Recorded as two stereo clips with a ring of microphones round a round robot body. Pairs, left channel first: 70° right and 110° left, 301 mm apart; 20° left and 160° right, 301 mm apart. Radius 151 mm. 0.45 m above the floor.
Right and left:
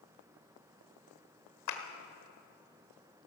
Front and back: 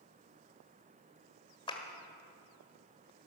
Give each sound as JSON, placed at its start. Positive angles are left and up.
{"t": 1.7, "sound": "a clap", "azimuth_deg": -50, "distance_m": 1.5}